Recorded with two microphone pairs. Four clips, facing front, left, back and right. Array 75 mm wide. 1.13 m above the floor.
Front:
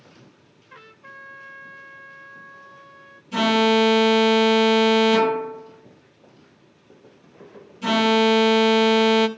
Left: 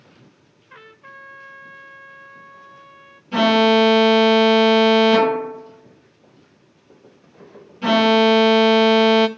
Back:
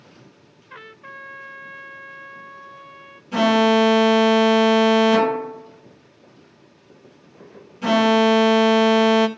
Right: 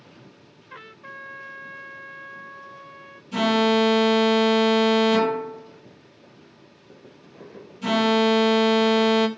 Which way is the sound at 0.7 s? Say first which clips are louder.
Right 1 dB, back 5 dB; 165° right.